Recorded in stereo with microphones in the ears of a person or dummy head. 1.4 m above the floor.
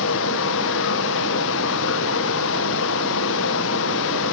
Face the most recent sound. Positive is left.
turn(degrees=70)  # may be behind; listen again after turning